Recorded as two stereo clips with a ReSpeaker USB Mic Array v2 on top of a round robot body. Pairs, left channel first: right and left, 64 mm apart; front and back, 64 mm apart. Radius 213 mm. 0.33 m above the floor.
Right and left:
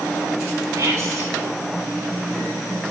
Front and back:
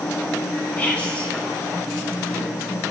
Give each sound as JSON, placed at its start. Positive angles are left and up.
{"t": 0.8, "sound": "whispering", "azimuth_deg": 70, "distance_m": 3.0}